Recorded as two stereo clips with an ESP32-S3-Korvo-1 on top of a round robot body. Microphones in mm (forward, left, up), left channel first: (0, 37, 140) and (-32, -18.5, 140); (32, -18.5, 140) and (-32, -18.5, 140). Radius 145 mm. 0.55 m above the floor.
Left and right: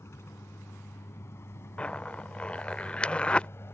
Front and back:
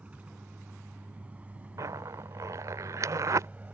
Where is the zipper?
135° left.